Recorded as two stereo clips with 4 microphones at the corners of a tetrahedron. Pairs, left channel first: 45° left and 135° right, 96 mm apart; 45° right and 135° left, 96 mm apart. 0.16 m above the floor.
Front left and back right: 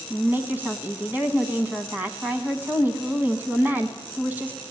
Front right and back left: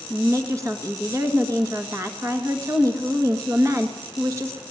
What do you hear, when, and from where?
0.1 s a woman speaking: 165° left, 1.4 m